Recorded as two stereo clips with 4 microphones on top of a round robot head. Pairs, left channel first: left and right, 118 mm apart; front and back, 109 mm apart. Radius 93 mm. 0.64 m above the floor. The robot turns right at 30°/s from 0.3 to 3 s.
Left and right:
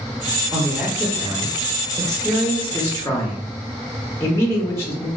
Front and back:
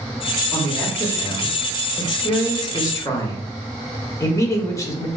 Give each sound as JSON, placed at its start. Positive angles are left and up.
{"t": 0.5, "sound": "a man speaking", "azimuth_deg": -40, "distance_m": 0.8}